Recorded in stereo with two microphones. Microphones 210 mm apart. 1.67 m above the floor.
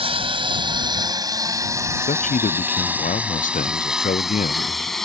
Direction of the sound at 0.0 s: 30° right (ahead or behind).